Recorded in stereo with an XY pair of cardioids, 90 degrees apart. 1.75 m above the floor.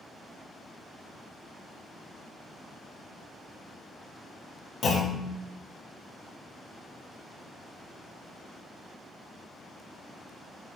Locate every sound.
4.8 s a clunk: 55° left, 2.0 m